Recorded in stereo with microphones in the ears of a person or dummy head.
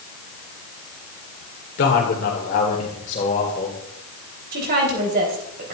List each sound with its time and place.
1.8 s a man speaking: 60° left (ahead or behind), 2.0 m; by 3.8 s 40° left (ahead or behind), 3 m
4.5 s a woman speaking: 55° right (ahead or behind), 3.5 m